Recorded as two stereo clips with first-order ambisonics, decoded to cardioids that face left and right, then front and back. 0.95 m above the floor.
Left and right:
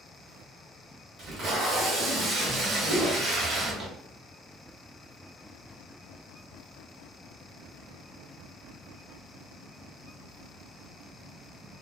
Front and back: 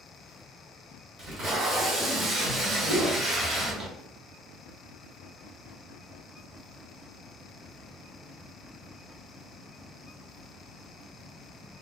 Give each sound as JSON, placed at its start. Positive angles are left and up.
{"t": 1.2, "sound": "tape being pulled", "azimuth_deg": -135, "distance_m": 0.7}
{"t": 2.9, "sound": "a whoosh", "azimuth_deg": -175, "distance_m": 1.5}